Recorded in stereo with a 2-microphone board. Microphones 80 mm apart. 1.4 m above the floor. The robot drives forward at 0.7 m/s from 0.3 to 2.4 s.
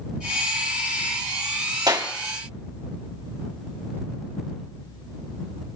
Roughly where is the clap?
Right.